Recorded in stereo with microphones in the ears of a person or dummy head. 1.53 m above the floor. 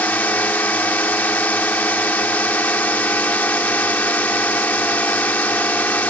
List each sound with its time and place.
0.0 s a drone: 10° left (ahead or behind)